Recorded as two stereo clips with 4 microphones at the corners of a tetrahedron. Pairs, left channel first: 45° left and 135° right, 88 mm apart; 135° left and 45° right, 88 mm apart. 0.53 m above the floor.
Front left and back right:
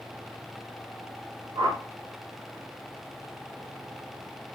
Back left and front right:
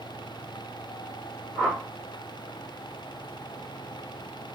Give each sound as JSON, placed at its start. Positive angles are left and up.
{"t": 1.6, "sound": "a whoosh", "azimuth_deg": -145, "distance_m": 0.9}